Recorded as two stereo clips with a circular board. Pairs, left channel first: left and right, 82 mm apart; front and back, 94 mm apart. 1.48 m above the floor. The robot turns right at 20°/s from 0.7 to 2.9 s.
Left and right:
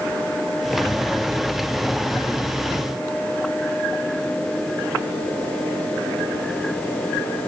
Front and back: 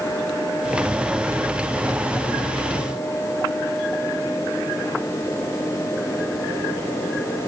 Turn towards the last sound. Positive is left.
No sound to turn to.